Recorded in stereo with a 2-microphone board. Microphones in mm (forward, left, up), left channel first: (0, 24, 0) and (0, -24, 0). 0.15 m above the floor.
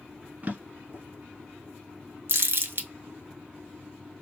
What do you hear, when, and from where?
0.4 s a drawer: 35° right (ahead or behind), 0.8 m
2.3 s crumpling: 60° right (ahead or behind), 0.7 m